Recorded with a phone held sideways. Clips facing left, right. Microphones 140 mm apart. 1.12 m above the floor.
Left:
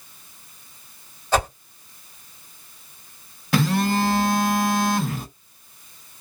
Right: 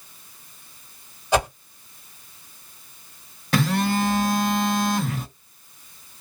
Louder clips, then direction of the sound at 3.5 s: Left 1 dB; centre (ahead or behind).